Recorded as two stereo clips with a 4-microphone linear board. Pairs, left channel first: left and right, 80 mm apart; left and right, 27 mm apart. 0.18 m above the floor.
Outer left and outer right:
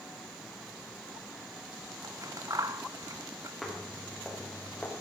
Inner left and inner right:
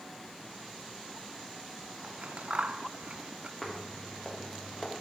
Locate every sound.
2.0 s scissors: 45° right (ahead or behind), 0.9 m
3.6 s footsteps: centre (ahead or behind), 4.5 m; by 4.9 s 15° left (ahead or behind), 4 m